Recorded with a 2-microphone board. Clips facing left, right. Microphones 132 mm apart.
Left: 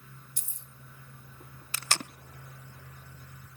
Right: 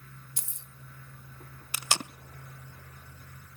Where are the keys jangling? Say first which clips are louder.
Right 2 dB; 75° right (ahead or behind), 1.0 m.